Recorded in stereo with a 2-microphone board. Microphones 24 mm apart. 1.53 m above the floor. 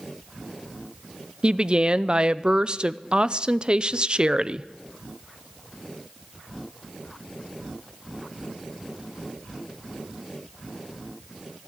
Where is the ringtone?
No ringtone in this recording.